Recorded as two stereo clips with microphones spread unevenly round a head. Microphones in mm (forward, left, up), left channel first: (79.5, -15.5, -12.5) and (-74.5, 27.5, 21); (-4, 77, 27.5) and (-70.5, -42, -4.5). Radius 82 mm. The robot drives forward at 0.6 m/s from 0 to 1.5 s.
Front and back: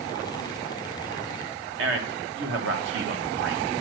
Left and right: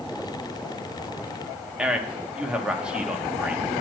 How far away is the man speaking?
About 1.3 m.